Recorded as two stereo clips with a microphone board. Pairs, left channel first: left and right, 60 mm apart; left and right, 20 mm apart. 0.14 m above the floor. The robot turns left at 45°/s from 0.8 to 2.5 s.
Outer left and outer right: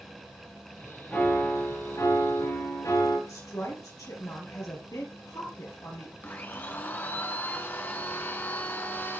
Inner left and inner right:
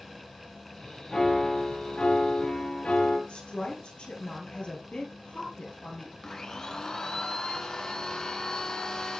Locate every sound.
1.1 s a piano: 155° left, 4.5 m; by 3.2 s 95° left, 4.5 m
3.3 s a woman speaking: 70° left (ahead or behind), 3.5 m
6.2 s a blender: 30° left (ahead or behind), 1.1 m